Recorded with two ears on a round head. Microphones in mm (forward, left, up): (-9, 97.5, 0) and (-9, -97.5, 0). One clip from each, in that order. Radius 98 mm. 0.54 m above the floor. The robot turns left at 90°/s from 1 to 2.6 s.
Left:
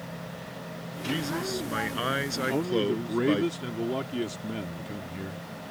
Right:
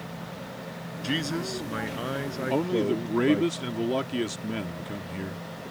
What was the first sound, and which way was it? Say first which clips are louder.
A man speaking: right 1 dB; 145° right.